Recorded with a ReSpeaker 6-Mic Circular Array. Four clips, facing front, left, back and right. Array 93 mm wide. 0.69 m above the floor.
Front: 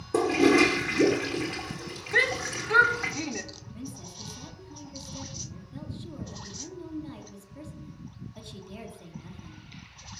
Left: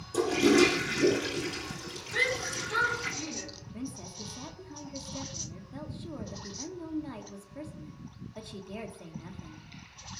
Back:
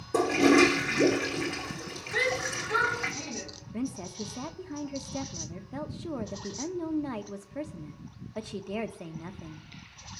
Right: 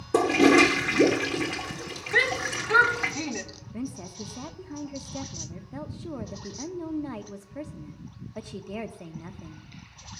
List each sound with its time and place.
0.1 s a toilet flushing: 85° right, 2.5 m
2.1 s a shout: 55° right, 1.8 m
3.7 s a woman speaking: 155° right, 1.1 m